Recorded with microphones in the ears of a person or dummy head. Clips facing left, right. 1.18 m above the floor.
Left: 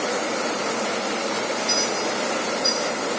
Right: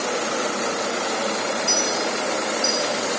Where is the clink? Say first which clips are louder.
Right 1 dB; 80° right, 2.5 m.